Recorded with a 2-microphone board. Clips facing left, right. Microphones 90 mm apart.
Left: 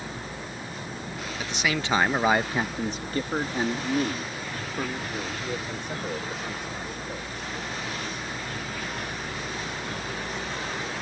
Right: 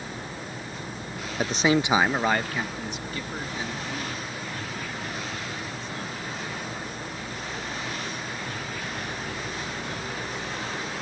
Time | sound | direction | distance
1.4 | a man speaking | 45° right (ahead or behind) | ?